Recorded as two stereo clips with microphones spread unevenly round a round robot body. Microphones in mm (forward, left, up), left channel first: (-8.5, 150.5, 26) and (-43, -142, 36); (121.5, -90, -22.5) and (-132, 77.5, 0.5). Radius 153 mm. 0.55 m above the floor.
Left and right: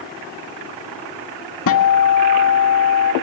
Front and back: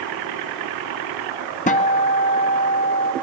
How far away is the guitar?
About 1.4 m.